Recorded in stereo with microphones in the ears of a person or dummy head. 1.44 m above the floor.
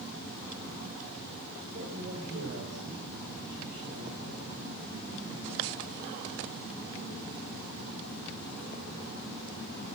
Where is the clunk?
No clunk in this recording.